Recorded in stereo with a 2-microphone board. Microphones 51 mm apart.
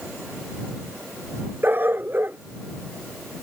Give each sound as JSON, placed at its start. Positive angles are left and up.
{"t": 1.6, "sound": "a dog barking", "side_deg": -35}